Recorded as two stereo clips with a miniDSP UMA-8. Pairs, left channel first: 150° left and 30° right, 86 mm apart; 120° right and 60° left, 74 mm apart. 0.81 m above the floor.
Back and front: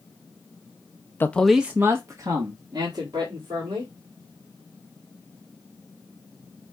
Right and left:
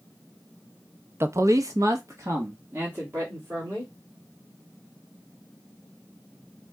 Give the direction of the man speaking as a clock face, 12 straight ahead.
9 o'clock.